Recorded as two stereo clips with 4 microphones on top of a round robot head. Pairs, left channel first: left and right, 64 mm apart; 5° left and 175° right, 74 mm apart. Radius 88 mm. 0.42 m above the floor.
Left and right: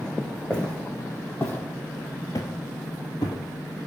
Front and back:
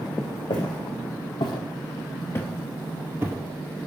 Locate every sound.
0.5 s footsteps: 15° left, 1.9 m; by 3.4 s 130° left, 0.9 m